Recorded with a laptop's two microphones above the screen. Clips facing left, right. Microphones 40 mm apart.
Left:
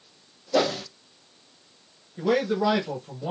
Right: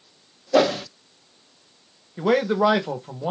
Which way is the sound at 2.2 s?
45° right (ahead or behind).